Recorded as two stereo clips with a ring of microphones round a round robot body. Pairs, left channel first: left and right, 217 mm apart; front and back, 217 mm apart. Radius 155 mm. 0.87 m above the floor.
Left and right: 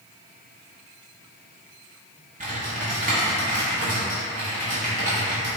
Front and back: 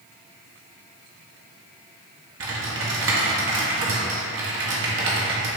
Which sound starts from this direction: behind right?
Typing on a keyboard, at 2.4 s.